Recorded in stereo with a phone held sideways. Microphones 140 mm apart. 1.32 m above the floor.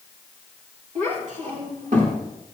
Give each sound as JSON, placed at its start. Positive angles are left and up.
{"t": 0.9, "sound": "a child speaking", "side_deg": -60, "distance_m": 3.5}